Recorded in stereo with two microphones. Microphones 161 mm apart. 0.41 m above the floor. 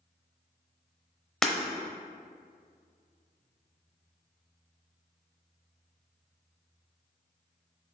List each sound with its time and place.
1.4 s breaking glass: centre (ahead or behind), 0.8 m